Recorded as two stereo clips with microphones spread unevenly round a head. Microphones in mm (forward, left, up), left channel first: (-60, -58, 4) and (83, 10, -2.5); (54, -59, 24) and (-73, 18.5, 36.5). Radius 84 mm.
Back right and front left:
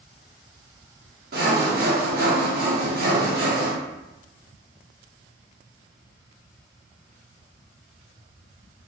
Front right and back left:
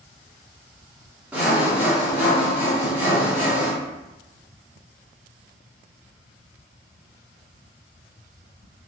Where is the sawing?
65° left, 0.6 m.